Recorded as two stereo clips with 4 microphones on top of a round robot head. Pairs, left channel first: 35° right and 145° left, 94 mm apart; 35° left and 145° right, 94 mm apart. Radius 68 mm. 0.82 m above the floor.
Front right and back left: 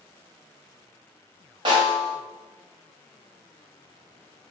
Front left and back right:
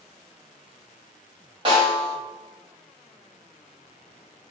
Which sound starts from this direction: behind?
A snare drum, at 1.6 s.